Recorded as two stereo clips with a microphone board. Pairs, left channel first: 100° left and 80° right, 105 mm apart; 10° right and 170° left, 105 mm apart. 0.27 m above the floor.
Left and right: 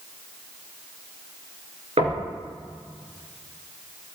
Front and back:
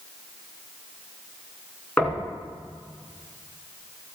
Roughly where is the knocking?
Right.